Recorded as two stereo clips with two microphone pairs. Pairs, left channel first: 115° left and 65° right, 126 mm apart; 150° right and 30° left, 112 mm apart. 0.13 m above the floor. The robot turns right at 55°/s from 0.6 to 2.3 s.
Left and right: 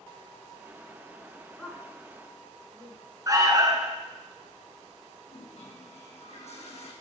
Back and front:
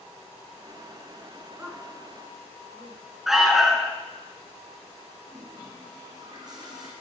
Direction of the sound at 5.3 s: 85° left.